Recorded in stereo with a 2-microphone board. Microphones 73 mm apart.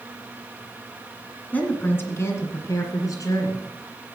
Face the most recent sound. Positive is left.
turn(degrees=50)  # may be behind; listen again after turning